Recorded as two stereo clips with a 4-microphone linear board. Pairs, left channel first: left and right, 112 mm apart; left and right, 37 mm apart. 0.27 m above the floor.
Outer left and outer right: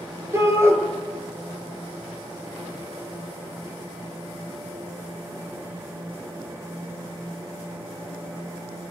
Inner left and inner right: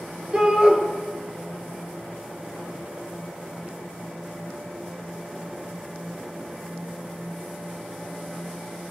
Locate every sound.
0.3 s a shout: 25° right (ahead or behind), 4.5 m